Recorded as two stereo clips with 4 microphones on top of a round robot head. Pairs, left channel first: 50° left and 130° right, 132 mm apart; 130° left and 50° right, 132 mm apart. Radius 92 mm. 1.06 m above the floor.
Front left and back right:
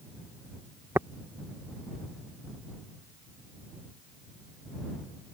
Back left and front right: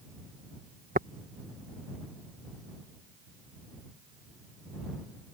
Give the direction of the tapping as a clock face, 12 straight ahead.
2 o'clock.